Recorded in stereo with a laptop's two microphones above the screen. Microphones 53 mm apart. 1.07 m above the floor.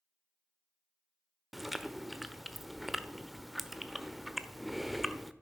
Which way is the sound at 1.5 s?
5° right (ahead or behind).